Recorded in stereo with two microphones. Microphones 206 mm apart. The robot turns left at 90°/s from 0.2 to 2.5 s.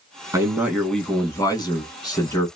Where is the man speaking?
15° right (ahead or behind), 1.0 m; by 2.5 s 10° left (ahead or behind), 1.0 m.